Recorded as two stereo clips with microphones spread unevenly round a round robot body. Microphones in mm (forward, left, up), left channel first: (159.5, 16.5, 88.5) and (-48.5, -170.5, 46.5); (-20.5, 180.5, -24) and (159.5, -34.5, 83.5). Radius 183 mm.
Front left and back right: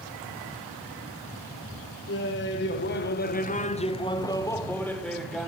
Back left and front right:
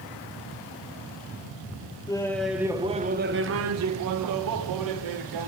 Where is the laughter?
85° left, 1.0 m; by 5.5 s 50° right, 1.6 m.